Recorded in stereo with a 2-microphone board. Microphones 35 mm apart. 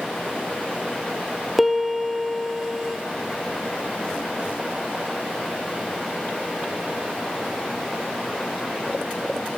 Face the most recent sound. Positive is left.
turn(degrees=-5)  # may be behind; listen again after turning